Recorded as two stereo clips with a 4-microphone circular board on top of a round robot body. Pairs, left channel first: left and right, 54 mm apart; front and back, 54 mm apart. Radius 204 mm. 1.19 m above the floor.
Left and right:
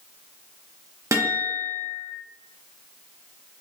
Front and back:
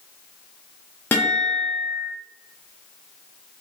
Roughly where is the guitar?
Ahead right.